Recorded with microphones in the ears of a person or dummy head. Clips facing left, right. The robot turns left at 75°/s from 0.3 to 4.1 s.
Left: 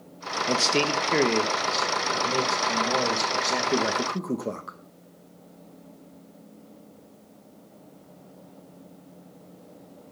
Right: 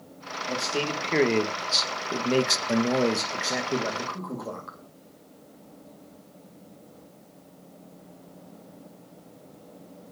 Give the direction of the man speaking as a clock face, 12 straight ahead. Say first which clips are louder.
Left 4 dB; 10 o'clock.